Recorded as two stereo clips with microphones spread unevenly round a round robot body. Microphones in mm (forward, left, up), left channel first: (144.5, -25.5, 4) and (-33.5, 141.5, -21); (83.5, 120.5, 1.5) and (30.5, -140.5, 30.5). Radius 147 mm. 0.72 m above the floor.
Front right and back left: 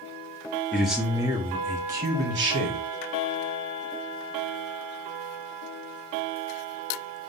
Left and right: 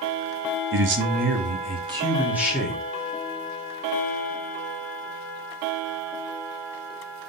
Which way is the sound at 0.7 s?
135° right.